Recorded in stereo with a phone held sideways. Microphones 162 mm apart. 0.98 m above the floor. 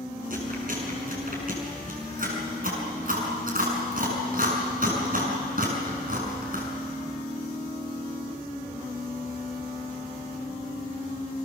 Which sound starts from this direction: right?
Chewing, at 0.3 s.